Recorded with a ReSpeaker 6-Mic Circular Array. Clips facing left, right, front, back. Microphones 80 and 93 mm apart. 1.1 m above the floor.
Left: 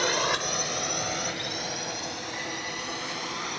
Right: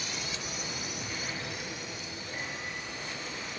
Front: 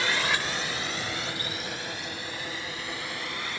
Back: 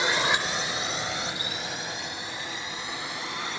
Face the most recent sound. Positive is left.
turn(degrees=110)